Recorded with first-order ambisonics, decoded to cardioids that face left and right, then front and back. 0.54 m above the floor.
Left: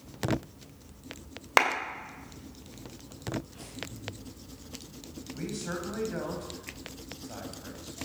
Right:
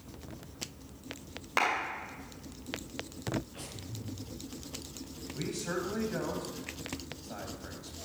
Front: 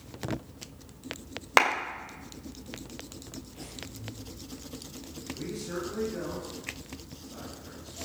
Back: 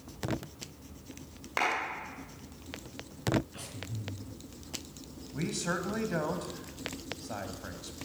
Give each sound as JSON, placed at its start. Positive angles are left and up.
{"t": 1.6, "sound": "a clap", "azimuth_deg": 40, "distance_m": 2.0}
{"t": 3.5, "sound": "breathing", "azimuth_deg": -165, "distance_m": 4.5}
{"t": 5.3, "sound": "a man speaking", "azimuth_deg": 180, "distance_m": 2.5}